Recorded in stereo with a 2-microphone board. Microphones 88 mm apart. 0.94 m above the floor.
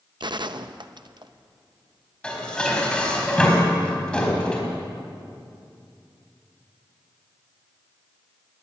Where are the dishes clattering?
10° left (ahead or behind), 4 m.